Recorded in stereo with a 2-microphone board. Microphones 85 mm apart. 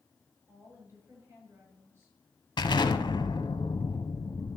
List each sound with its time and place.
0.5 s a woman speaking: 30° right (ahead or behind), 8 m
2.6 s an explosion: 65° left (ahead or behind), 1.0 m